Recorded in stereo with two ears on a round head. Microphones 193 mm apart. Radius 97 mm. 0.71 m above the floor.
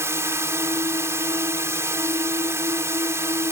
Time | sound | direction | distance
0.0 | a drone | 15° right (ahead or behind) | ?